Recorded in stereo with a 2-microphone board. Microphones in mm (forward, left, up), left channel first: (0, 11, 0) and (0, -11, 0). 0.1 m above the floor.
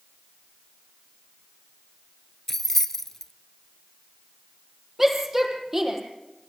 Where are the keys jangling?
15° left (ahead or behind), 1.0 m.